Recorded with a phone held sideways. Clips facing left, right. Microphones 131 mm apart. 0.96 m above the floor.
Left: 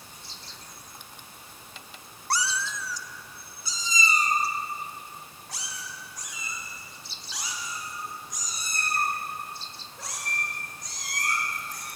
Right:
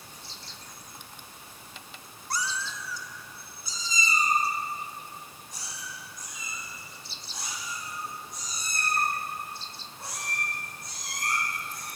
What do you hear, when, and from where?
2.3 s a cat meowing: 65° left (ahead or behind), 0.9 m; by 11.9 s 85° left, 9 m